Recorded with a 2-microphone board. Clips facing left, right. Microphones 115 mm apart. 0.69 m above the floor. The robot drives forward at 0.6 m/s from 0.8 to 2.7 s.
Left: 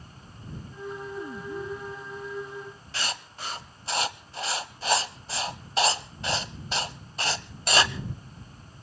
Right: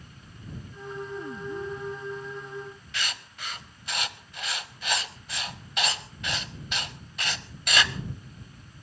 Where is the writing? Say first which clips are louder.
Left 3 dB; 30° left (ahead or behind), 1.0 m.